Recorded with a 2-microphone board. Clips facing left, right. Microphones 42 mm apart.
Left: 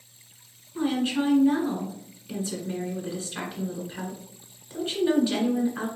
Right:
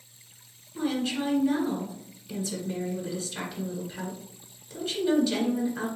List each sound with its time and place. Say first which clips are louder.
0.8 s a woman speaking: left 3 dB; 30° left (ahead or behind), 1.6 m